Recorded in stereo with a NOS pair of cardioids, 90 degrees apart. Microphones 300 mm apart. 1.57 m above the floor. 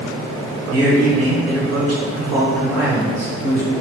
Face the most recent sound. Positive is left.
turn(degrees=-55)